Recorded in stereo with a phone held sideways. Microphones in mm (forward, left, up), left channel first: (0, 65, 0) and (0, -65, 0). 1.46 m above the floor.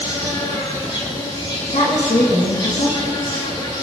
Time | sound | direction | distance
0.0 | an insect | 45° left (ahead or behind) | 4 m
1.7 | a woman speaking | 75° left (ahead or behind) | 2.5 m